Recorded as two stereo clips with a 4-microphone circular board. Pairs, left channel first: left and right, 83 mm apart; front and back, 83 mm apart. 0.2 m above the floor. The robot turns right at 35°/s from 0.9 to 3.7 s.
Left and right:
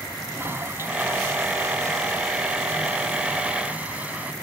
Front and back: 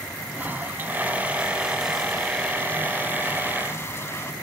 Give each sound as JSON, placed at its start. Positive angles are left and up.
{"t": 0.3, "sound": "a toilet flushing", "azimuth_deg": -130}